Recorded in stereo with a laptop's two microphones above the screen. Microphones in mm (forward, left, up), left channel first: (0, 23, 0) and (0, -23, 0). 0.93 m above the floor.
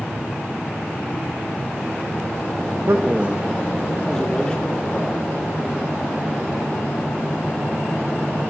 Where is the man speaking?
55° right (ahead or behind), 1.0 m; by 5.3 s 25° left (ahead or behind), 3.5 m.